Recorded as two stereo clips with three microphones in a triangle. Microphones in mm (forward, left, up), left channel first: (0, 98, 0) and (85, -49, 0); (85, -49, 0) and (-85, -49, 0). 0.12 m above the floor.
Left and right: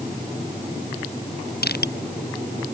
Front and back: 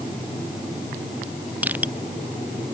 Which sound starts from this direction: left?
Crushing, at 1.6 s.